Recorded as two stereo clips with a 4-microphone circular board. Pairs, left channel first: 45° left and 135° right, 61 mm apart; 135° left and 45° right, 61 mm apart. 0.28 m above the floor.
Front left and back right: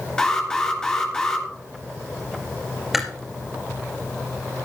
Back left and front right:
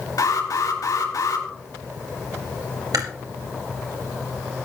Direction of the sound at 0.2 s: 120° left.